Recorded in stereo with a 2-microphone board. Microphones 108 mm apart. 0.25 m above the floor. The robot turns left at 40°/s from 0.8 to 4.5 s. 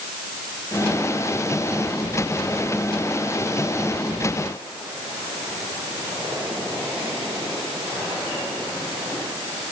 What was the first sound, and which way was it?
Only background noise.